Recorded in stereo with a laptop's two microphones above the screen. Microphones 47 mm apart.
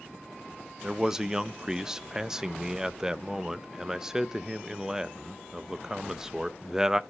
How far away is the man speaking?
About 0.7 m.